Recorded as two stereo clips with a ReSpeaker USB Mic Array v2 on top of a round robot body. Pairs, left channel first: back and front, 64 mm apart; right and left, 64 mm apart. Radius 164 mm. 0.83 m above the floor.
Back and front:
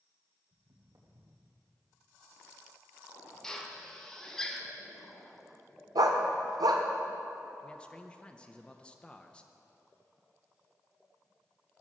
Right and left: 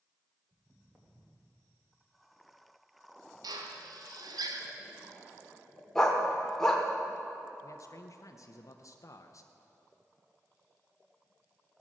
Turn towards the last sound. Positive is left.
turn(degrees=-110)